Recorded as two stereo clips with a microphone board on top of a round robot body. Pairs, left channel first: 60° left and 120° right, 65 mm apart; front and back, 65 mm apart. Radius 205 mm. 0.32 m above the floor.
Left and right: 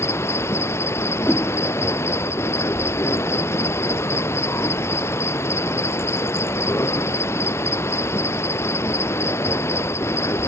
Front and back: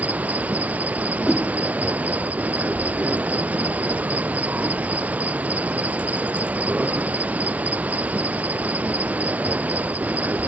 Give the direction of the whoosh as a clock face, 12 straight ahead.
8 o'clock.